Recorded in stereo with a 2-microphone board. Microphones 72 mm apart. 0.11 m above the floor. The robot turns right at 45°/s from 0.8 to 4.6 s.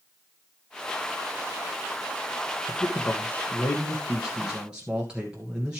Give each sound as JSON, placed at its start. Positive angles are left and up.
{"t": 2.7, "sound": "a man speaking", "azimuth_deg": 110, "distance_m": 1.5}